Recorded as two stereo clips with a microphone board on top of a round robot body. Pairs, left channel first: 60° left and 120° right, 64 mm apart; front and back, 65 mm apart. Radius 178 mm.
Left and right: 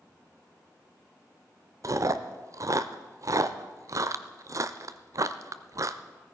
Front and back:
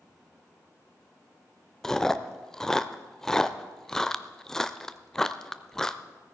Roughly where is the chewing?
Right.